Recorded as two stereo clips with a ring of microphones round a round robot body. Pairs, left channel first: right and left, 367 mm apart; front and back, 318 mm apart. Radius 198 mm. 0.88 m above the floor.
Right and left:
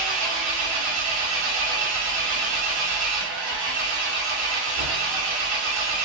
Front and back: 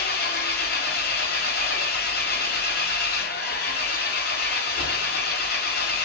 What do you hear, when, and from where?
0.0 s an engine running: 60° left, 0.7 m